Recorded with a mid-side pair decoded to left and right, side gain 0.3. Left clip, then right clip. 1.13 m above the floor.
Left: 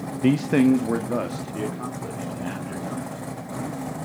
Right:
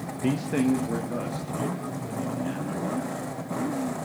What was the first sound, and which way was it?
A man speaking, 55° left.